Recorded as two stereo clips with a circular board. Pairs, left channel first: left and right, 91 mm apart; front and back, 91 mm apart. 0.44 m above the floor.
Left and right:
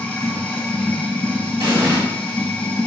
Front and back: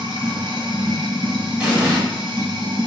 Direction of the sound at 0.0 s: 160° left.